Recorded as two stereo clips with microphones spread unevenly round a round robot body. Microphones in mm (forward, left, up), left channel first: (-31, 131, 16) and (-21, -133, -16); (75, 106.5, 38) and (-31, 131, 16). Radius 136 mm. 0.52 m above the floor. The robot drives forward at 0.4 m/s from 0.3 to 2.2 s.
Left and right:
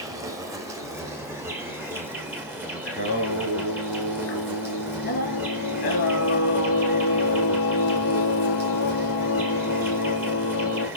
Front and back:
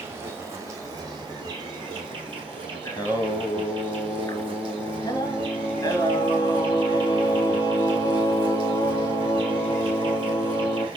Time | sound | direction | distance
0.0 | an insect | 150° right | 1.3 m
2.9 | singing | 45° left | 2 m